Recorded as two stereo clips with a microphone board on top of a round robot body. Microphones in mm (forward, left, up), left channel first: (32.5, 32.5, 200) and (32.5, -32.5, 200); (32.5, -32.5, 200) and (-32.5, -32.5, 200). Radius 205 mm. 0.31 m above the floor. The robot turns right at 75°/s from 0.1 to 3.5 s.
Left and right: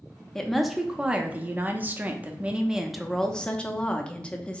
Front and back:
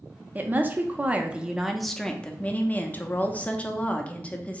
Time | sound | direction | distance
0.3 | a woman speaking | 160° left | 0.9 m